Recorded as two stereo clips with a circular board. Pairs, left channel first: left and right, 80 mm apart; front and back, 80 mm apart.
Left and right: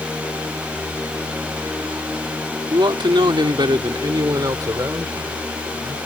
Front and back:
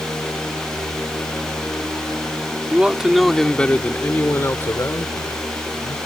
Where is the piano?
No piano in this recording.